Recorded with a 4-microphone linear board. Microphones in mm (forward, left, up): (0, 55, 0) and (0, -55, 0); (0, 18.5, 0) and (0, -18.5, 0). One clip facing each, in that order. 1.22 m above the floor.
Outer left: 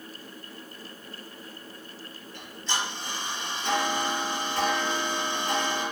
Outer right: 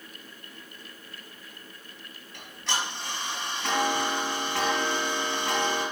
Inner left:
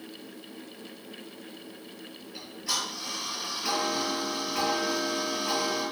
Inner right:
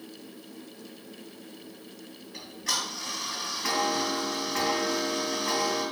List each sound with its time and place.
2.3 s ticking: 75° right (ahead or behind), 3.5 m